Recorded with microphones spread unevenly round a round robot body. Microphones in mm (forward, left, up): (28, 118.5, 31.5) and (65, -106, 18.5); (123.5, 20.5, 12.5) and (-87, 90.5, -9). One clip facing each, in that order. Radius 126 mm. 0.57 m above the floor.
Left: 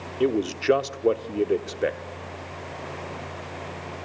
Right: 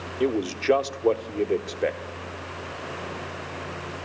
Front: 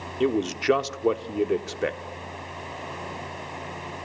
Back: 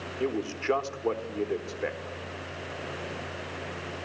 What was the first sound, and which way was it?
A man speaking, 20° left.